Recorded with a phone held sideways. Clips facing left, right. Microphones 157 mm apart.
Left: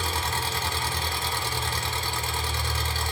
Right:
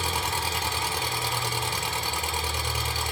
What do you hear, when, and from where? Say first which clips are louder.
0.0 s an engine running: even; 15° right (ahead or behind), 1.5 m